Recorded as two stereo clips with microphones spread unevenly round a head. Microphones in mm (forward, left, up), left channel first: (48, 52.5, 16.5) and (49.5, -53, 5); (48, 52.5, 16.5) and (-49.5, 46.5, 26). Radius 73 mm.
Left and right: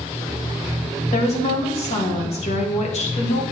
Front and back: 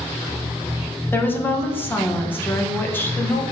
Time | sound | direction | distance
1.1 | a woman speaking | 75° left | 1.5 m